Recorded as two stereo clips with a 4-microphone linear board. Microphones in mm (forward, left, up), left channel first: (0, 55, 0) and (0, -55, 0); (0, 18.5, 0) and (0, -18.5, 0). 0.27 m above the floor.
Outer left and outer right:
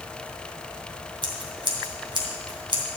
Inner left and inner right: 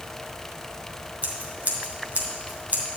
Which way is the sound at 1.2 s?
45° right (ahead or behind).